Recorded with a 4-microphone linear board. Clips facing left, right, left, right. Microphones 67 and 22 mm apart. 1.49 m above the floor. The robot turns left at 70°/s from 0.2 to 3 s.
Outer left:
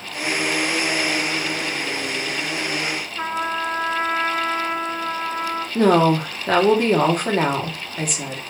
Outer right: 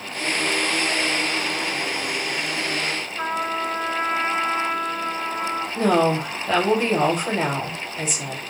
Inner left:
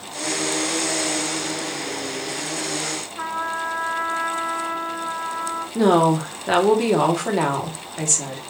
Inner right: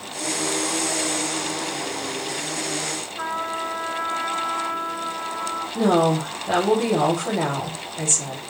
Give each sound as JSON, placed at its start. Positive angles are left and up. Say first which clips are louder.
{"t": 3.2, "sound": "a trumpet", "louder": "outer left 1 dB, inner left 1 dB", "side_deg": 5, "distance_m": 0.6}
{"t": 5.8, "sound": "a woman speaking", "louder": "outer left 4 dB, inner left 2 dB", "side_deg": 55, "distance_m": 0.9}